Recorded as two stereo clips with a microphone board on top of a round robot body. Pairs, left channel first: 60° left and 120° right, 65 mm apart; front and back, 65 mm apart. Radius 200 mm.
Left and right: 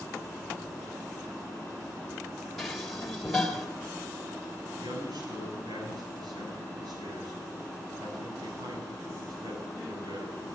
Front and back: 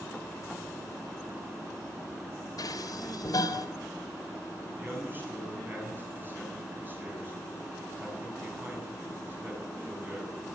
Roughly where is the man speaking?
Behind right.